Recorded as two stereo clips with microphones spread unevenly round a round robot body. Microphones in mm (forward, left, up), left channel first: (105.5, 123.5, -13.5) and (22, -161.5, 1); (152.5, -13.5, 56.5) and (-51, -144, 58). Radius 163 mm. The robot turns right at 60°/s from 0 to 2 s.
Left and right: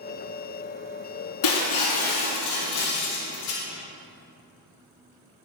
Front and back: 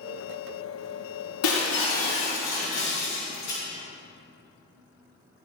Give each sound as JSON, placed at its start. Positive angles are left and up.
{"t": 1.4, "sound": "breaking glass", "azimuth_deg": 70, "distance_m": 4.0}